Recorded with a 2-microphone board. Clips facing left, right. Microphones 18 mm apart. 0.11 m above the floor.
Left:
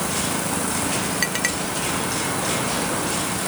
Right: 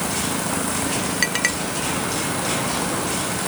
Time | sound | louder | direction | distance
1.2 | a clink | right 4 dB | 5° right (ahead or behind) | ?